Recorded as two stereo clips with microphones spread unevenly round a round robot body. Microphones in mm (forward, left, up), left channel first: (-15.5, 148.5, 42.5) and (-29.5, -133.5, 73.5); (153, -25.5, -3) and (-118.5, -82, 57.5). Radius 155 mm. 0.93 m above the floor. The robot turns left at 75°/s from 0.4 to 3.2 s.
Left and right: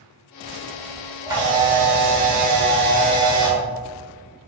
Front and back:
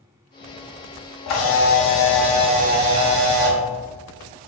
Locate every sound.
1.3 s a camera shutter: 20° right, 0.8 m; by 3.6 s 165° right, 0.8 m